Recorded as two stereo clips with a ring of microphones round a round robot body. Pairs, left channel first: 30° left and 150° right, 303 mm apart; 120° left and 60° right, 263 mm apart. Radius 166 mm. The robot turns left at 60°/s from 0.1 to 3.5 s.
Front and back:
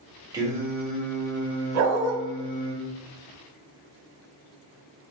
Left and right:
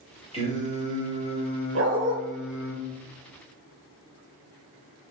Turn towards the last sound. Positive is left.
turn(degrees=145)